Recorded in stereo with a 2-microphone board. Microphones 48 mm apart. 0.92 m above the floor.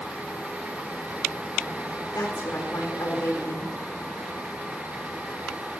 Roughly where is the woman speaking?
Left.